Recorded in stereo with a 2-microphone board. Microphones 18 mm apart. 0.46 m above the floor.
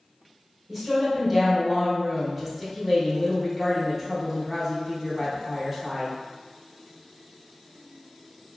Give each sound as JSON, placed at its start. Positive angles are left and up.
{"t": 0.7, "sound": "a woman speaking", "side_deg": -10, "distance_m": 0.9}